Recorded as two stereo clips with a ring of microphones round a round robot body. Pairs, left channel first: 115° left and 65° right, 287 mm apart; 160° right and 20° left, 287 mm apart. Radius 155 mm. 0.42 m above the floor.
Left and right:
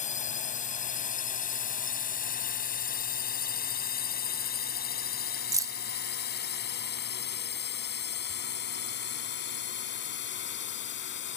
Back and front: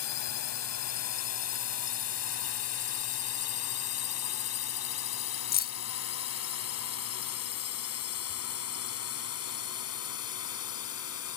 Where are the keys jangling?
140° right.